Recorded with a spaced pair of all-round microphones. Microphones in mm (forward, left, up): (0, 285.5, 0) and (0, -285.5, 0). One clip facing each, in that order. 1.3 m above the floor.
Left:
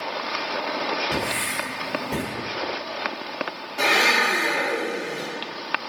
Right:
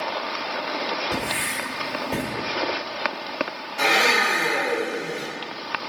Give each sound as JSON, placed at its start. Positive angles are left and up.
{"t": 1.1, "sound": "writing", "side_deg": 80, "distance_m": 1.6}
{"t": 3.8, "sound": "a blender", "side_deg": 60, "distance_m": 1.4}